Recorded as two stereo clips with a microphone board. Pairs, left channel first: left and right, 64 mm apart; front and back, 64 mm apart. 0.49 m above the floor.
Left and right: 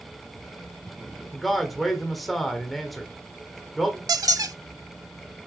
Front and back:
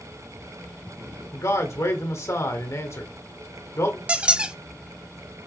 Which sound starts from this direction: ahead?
A man speaking, at 1.3 s.